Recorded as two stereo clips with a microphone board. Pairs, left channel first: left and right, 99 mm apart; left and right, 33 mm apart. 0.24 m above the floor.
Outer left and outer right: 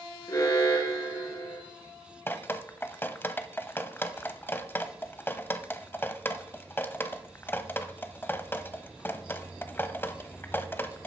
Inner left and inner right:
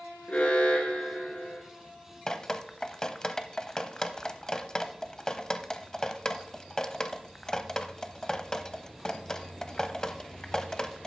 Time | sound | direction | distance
0.3 | an alarm | 35° left (ahead or behind) | 2.5 m
2.3 | dripping | 20° left (ahead or behind) | 0.6 m